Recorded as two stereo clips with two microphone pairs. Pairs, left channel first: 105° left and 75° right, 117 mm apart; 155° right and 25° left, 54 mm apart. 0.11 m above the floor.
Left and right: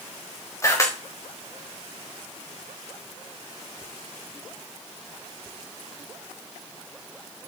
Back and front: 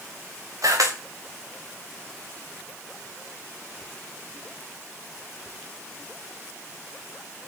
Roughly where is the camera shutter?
Ahead left.